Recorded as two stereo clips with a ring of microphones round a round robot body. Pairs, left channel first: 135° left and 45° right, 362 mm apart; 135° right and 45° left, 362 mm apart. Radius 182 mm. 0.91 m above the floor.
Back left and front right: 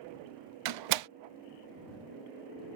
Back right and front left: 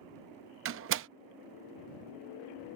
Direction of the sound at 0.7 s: 15° right.